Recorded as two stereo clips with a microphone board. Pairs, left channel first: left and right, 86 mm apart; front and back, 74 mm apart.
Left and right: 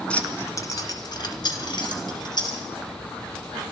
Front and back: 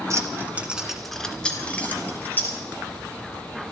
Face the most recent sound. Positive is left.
turn(degrees=60)